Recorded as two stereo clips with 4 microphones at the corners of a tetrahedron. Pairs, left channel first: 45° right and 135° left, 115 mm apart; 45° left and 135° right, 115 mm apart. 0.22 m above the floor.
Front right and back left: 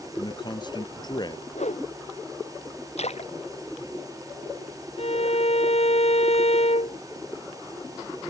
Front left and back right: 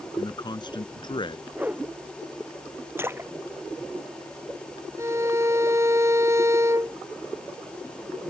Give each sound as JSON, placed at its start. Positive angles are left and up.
{"t": 0.2, "sound": "a man speaking", "azimuth_deg": -5}
{"t": 1.5, "sound": "a whoosh", "azimuth_deg": -60}
{"t": 3.0, "sound": "a splash", "azimuth_deg": -65}
{"t": 5.0, "sound": "a violin", "azimuth_deg": -70}